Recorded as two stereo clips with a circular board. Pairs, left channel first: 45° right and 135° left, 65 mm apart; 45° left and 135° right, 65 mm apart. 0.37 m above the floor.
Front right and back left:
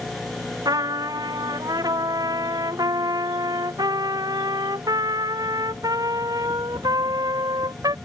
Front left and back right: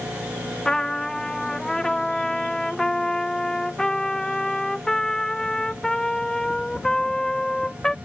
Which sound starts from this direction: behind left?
A trumpet, at 0.7 s.